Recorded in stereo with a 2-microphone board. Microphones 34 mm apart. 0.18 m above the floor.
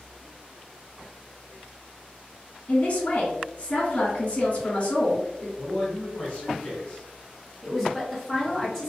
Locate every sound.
2.7 s a man speaking: 45° left (ahead or behind), 1.8 m
5.6 s a man speaking: 20° left (ahead or behind), 1.3 m
7.6 s a woman speaking: 10° left (ahead or behind), 2.0 m